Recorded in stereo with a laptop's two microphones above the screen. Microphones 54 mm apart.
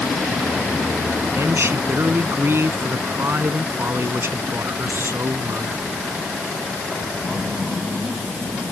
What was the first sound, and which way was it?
A man speaking, 55° right (ahead or behind).